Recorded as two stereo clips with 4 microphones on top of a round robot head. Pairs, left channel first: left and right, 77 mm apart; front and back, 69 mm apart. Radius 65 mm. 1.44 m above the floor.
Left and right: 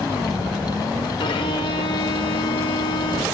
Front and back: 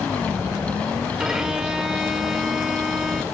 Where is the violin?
100° left, 1.4 m.